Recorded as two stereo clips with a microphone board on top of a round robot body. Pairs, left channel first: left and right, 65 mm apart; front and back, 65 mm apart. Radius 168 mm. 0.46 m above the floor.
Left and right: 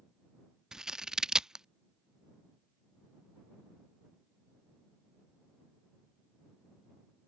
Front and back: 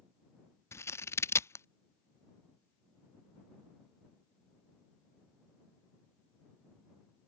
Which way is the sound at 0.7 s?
15° right.